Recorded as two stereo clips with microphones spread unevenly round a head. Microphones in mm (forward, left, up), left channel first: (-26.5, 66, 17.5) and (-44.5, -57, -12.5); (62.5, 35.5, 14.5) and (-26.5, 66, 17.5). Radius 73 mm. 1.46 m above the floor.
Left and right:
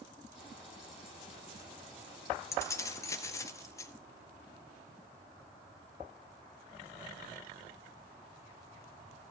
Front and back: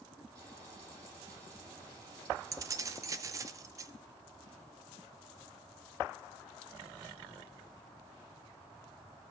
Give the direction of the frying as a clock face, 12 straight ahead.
8 o'clock.